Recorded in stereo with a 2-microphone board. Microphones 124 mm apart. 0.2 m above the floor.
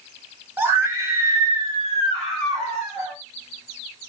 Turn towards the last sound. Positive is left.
turn(degrees=-20)  # may be behind; listen again after turning